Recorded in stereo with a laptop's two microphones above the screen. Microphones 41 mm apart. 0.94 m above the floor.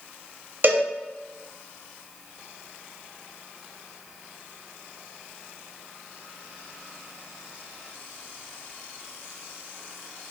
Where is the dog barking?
I don't hear a dog barking.